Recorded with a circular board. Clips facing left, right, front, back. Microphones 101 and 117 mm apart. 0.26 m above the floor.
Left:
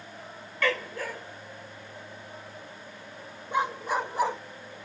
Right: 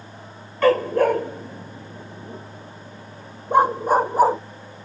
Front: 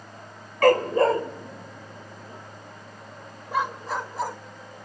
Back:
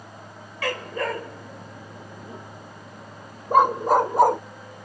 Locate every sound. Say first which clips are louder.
0.6 s a dog barking: right 13 dB, front 10 dB; 40° right; by 4.4 s 145° right